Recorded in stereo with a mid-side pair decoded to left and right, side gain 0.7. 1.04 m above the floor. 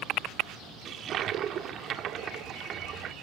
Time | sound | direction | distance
0.8 | a toilet flushing | 40° right | 2 m